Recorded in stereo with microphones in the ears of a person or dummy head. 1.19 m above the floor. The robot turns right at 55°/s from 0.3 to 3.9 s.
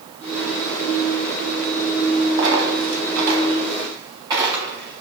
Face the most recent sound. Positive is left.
turn(degrees=-25)  # may be behind; listen again after turning